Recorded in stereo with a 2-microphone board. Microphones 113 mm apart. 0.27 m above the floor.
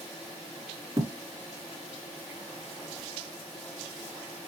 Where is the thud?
25° right (ahead or behind), 1.8 m.